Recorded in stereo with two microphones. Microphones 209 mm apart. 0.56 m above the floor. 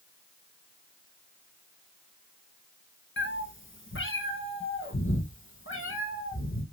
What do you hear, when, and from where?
3.2 s a cat meowing: 65° left (ahead or behind), 1.5 m; by 6.6 s 80° left, 4 m